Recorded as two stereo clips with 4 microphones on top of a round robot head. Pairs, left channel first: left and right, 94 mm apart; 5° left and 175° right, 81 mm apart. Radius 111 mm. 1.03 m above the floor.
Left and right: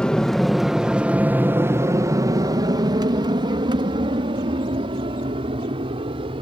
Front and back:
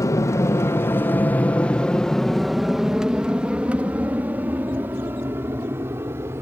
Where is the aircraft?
15° left; by 6.4 s 115° right.